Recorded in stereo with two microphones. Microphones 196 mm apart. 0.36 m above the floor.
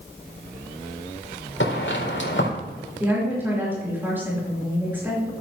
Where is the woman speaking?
10° right (ahead or behind), 5 m.